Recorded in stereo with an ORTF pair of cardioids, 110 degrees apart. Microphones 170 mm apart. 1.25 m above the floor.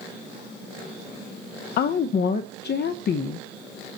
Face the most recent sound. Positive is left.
turn(degrees=70)